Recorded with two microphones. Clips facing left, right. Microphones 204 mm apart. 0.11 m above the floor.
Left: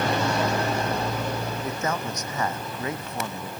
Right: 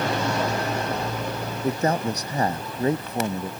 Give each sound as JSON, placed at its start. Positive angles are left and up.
{"t": 1.6, "sound": "a man speaking", "side_deg": -35}